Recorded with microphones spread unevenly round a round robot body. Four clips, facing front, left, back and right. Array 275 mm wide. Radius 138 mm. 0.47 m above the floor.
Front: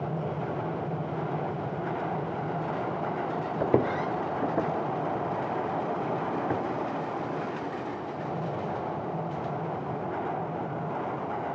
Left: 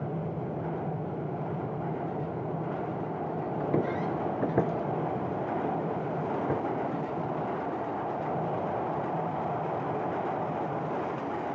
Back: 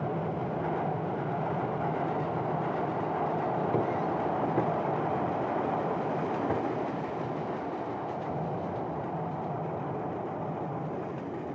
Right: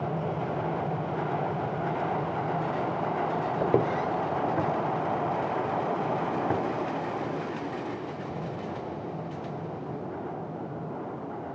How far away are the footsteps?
About 0.7 m.